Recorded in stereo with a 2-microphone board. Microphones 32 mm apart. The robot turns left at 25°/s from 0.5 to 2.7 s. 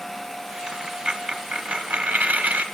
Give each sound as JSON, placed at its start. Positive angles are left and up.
{"t": 0.7, "sound": "a dropped coin", "azimuth_deg": -25, "distance_m": 0.9}